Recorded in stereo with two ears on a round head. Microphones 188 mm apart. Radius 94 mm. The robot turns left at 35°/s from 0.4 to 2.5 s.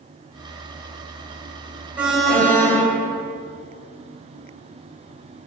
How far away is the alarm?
About 1.3 m.